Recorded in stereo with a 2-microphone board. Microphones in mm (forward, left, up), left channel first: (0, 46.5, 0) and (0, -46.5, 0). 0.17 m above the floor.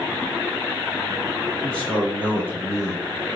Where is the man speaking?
10° left (ahead or behind), 1.4 m; by 3.4 s 45° left (ahead or behind), 1.5 m.